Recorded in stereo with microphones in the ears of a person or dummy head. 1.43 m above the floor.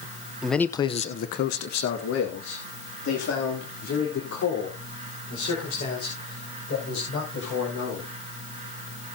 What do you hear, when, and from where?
0.4 s a man speaking: 10° right (ahead or behind), 0.7 m; by 8.1 s 90° left, 7 m